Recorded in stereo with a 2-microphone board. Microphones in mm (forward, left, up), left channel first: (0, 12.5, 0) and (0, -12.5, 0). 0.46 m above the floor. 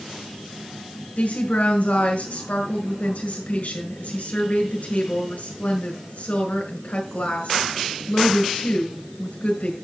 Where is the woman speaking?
75° left (ahead or behind), 5.5 m.